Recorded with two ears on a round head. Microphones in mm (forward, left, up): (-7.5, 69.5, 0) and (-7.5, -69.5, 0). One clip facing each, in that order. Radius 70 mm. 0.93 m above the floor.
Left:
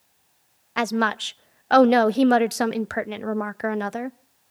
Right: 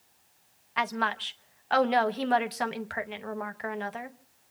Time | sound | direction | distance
0.8 | a woman speaking | 55° left (ahead or behind) | 0.8 m